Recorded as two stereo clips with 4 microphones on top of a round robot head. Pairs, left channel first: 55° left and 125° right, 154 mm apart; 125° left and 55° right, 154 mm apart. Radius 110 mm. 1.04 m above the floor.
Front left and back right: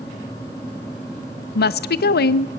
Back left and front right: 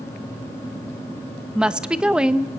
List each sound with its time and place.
1.6 s a woman speaking: 30° left, 0.7 m